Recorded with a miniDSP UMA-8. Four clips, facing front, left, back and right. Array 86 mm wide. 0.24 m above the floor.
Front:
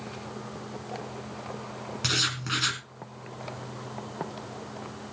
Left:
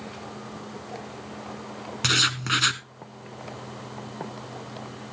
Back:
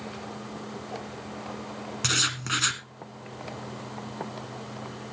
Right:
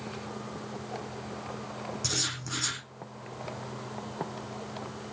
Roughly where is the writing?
Left.